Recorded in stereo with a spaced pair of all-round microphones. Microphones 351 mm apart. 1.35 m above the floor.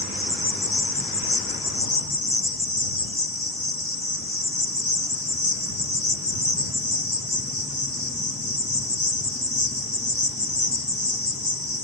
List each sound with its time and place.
0.0 s an insect: 80° left